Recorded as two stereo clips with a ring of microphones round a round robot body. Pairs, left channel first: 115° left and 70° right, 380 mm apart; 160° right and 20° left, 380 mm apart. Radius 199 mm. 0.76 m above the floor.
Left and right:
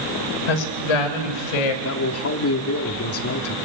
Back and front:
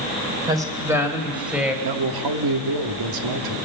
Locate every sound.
0.5 s a woman speaking: 105° left, 3 m; by 1.7 s 110° left, 4 m
1.8 s a man speaking: 60° left, 1.5 m